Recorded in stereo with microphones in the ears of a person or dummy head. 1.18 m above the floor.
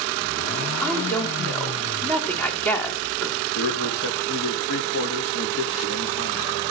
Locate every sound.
0.8 s a woman speaking: 5° left (ahead or behind), 2.5 m
3.5 s a man speaking: 70° left (ahead or behind), 3 m